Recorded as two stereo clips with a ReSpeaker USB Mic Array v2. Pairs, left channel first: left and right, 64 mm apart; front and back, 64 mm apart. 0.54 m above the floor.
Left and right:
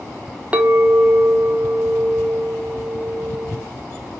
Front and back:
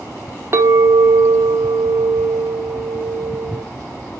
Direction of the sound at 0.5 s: 150° right.